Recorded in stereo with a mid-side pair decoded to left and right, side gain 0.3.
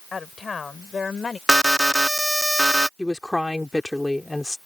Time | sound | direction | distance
0.1 | a woman speaking | 55° left | ?
1.5 | an alarm | 10° right | ?
3.0 | a woman speaking | 15° left | ?